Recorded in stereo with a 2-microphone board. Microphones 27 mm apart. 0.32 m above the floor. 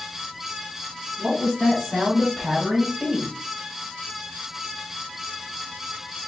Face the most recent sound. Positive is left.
turn(degrees=-45)  # may be behind; listen again after turning